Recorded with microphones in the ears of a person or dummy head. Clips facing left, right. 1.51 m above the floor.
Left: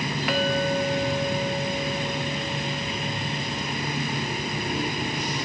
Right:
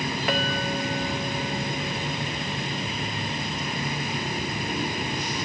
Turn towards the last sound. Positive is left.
turn(degrees=-35)  # may be behind; listen again after turning